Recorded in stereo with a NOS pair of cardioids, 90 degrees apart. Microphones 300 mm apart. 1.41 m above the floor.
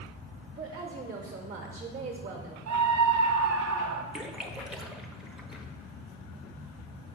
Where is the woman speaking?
40° right, 1.1 m.